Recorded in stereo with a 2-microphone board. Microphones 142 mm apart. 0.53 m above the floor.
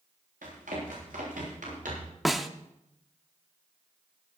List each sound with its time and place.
0.4 s running footsteps: 80° right, 9 m; by 2.1 s 75° right (ahead or behind), 10 m
2.2 s a snare drum: centre (ahead or behind), 0.7 m